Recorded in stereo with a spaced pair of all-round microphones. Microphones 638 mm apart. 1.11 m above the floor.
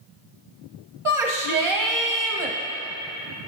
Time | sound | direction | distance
1.1 | a shout | 50° right (ahead or behind) | 1.0 m